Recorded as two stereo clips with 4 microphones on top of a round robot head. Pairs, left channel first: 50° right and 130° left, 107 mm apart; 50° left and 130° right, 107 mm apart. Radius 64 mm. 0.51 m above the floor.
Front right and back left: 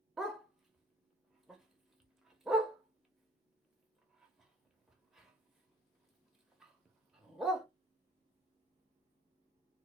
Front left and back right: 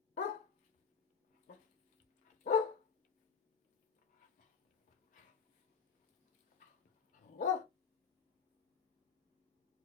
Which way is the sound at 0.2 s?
45° left.